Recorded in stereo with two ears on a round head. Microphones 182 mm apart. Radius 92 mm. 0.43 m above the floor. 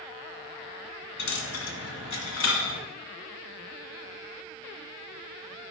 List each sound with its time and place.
1.2 s a dropped coin: 65° left (ahead or behind), 1.8 m